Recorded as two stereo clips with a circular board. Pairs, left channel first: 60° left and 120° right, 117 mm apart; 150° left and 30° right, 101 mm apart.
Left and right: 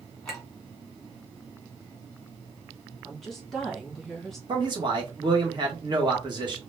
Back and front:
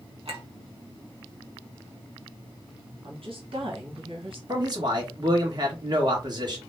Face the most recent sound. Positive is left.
turn(degrees=-75)